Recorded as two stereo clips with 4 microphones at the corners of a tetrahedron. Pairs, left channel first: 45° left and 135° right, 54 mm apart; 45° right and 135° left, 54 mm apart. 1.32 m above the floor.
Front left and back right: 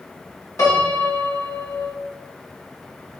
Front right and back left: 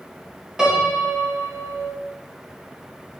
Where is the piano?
60° left, 1.4 m.